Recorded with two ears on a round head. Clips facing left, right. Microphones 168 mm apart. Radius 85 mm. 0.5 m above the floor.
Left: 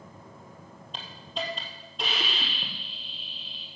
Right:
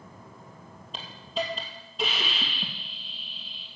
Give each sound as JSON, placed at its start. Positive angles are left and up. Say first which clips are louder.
{"t": 0.9, "sound": "a hiss", "louder": "right 4 dB", "side_deg": 0, "distance_m": 1.9}